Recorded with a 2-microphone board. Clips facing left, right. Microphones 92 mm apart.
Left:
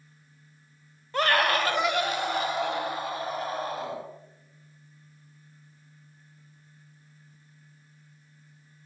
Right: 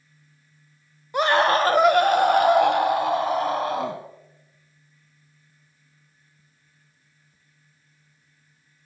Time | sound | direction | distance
1.1 | a scream | 15° right (ahead or behind) | 1.2 m